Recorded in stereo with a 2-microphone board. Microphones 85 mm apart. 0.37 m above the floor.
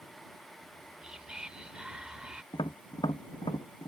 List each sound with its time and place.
0.6 s whispering: 10° right (ahead or behind)
2.5 s tapping: 75° left (ahead or behind)